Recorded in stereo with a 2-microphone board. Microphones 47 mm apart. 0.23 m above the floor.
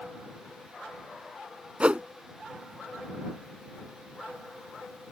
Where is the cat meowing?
I don't hear a cat meowing.